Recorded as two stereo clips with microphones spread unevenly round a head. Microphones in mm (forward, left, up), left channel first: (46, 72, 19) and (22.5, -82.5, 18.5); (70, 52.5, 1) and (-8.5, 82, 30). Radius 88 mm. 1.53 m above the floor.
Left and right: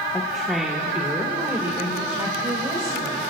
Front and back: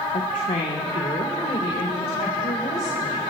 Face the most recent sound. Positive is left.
turn(degrees=-35)